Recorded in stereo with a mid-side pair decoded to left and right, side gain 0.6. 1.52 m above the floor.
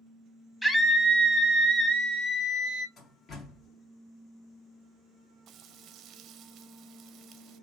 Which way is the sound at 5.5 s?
55° right.